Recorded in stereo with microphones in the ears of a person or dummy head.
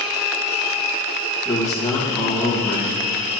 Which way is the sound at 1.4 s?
5° left (ahead or behind).